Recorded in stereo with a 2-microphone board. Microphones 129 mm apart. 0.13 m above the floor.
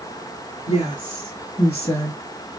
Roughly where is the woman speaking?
Left.